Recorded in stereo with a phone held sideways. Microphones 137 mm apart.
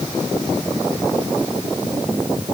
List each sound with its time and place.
Only background noise.